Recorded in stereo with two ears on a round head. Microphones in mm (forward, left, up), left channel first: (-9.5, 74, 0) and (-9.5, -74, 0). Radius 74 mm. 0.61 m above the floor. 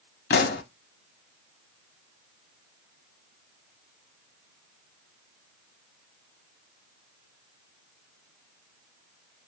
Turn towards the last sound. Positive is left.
turn(degrees=65)  # may be behind; listen again after turning